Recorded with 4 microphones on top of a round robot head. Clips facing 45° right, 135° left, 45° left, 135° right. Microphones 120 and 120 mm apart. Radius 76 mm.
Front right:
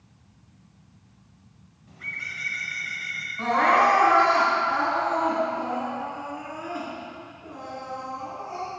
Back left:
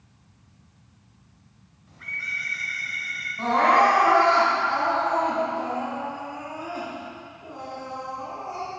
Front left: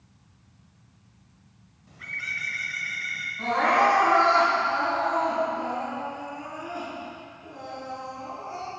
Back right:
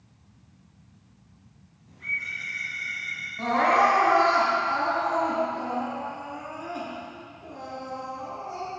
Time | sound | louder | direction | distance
1.9 | a bird | back left 2 dB, back right 1 dB | 30° left | 0.9 m
3.4 | crying | back left 1 dB, back right 1 dB | 165° right | 2 m